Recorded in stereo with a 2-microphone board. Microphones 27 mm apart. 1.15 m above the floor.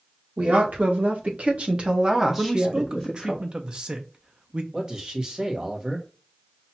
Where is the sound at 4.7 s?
30° right (ahead or behind), 1.2 m.